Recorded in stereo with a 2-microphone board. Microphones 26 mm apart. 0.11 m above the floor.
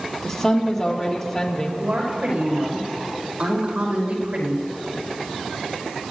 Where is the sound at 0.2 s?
10° left (ahead or behind), 3.5 m.